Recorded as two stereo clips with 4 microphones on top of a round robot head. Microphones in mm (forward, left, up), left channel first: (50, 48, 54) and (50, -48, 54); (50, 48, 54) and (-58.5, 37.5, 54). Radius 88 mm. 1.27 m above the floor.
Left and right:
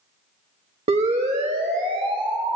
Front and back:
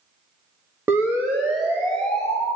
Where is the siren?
100° right, 2.5 m; by 2.6 s 85° right, 4 m.